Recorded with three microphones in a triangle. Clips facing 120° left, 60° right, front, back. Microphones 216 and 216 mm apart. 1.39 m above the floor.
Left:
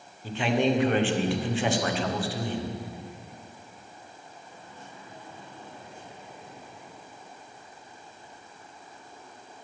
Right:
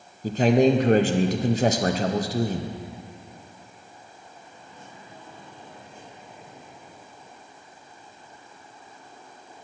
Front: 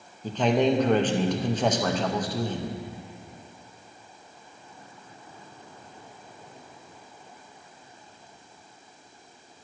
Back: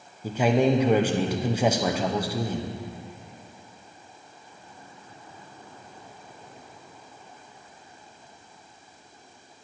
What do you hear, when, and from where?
0.2 s a man speaking: 100° right, 0.6 m